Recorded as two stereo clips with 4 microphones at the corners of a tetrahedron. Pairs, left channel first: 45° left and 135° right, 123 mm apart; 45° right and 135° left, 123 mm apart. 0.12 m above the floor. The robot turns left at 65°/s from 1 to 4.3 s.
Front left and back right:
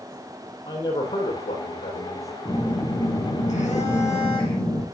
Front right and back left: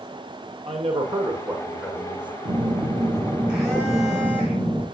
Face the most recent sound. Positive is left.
turn(degrees=0)